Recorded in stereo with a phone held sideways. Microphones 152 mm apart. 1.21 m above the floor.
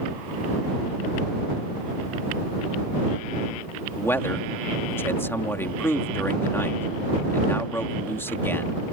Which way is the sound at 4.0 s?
15° left (ahead or behind).